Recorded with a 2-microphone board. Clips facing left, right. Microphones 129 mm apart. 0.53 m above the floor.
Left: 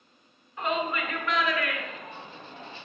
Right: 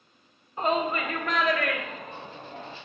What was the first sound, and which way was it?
A shout, 35° right (ahead or behind).